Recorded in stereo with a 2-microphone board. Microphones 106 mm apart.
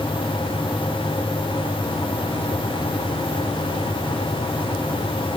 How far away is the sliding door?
No sliding door in this recording.